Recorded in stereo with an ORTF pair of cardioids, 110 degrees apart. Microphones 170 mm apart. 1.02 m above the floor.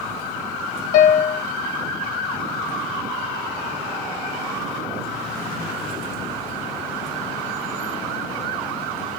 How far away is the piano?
About 0.7 m.